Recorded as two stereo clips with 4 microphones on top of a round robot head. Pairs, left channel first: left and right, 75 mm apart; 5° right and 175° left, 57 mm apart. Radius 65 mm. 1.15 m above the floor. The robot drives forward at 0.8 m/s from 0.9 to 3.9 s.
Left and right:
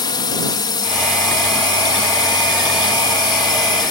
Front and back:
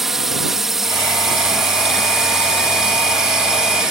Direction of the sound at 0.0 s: 90° left.